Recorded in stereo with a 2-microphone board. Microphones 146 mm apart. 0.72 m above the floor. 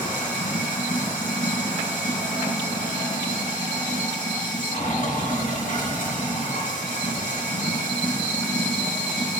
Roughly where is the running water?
Left.